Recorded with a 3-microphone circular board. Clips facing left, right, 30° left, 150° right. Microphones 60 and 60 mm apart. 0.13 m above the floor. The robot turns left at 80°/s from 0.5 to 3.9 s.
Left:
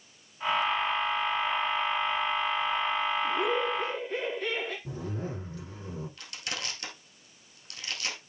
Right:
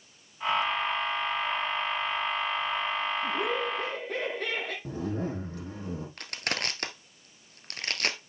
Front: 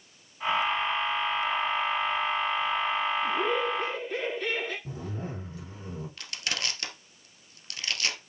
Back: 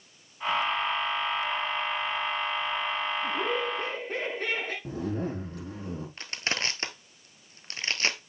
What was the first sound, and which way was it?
Laughter, 55° right.